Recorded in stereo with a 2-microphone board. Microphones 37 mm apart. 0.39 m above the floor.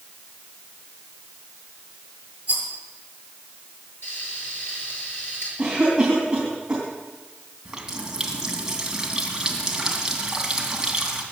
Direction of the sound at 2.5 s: 30° right (ahead or behind).